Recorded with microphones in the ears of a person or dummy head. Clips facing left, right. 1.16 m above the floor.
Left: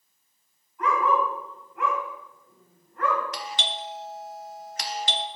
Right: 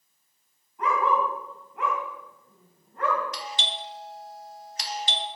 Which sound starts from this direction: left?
A doorbell, at 3.3 s.